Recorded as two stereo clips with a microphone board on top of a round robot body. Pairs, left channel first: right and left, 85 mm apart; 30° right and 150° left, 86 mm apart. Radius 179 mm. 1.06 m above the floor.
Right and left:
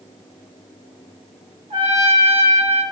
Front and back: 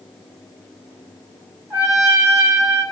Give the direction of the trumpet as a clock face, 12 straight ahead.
9 o'clock.